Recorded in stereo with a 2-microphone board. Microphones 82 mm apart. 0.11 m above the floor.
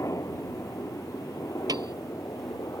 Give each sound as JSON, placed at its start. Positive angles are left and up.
{"t": 0.0, "sound": "a helicopter", "side_deg": 40}
{"t": 1.7, "sound": "a piano", "side_deg": -55}